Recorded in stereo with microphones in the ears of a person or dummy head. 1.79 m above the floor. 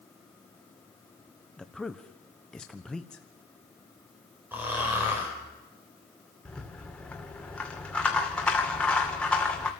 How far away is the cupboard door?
No cupboard door in this recording.